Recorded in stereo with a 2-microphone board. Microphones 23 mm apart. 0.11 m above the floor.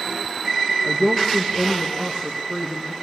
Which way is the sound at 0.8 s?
50° right (ahead or behind).